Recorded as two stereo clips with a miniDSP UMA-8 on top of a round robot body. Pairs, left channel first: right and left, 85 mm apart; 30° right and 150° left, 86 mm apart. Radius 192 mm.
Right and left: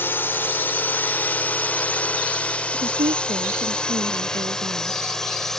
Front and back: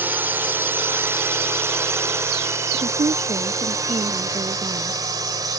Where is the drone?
150° right; by 5.6 s 175° right.